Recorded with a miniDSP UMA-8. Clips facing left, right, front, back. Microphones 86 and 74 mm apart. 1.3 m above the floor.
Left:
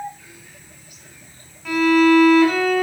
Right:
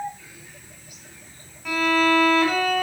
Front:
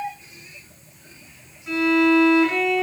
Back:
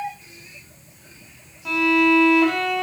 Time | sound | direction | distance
1.6 | a violin | straight behind | 5 m